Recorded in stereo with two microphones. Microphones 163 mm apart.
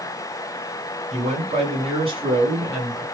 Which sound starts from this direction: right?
A man speaking, at 1.1 s.